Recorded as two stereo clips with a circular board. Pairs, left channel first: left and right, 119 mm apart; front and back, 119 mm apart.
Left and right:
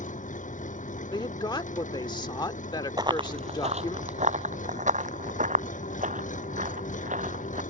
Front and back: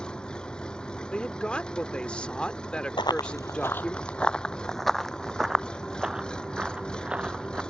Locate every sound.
0.0 s an engine running: 85° left
1.1 s a woman speaking: 75° left
3.0 s running footsteps: 40° right; by 7.6 s 100° right